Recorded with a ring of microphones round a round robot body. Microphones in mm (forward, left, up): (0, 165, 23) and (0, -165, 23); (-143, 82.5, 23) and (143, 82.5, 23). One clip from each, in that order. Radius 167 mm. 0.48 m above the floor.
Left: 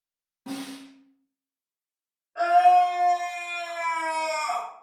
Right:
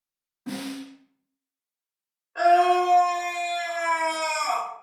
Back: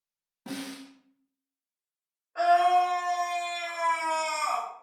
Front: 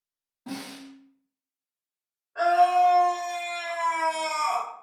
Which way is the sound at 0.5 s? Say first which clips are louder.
Right 2 dB, even; 155° left.